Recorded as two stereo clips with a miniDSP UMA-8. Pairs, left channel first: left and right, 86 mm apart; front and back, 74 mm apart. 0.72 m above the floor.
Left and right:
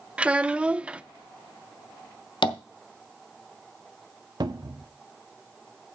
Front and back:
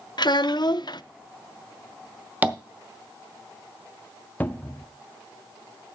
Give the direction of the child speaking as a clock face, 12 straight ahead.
12 o'clock.